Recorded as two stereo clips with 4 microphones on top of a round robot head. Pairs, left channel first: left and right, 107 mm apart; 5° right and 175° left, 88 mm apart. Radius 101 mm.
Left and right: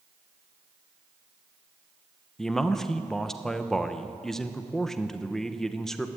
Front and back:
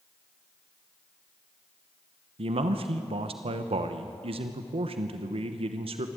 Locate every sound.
2.4 s a man speaking: 175° left, 1.0 m